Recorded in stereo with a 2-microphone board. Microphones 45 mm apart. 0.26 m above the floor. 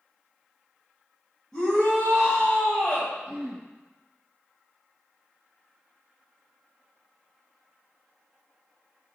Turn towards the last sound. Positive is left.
turn(degrees=-25)  # may be behind; listen again after turning